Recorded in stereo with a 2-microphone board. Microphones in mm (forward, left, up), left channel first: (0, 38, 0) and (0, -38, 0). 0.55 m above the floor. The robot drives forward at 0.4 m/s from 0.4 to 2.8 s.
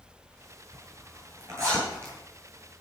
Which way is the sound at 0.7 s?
35° right (ahead or behind).